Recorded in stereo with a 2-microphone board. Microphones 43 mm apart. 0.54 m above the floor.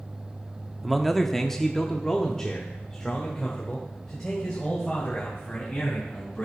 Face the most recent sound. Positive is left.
turn(degrees=15)  # may be behind; listen again after turning